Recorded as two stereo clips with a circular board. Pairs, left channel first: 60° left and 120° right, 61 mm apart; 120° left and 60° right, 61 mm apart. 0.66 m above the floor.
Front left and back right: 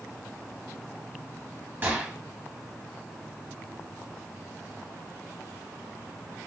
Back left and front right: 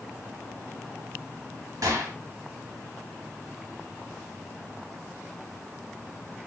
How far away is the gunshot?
About 0.9 m.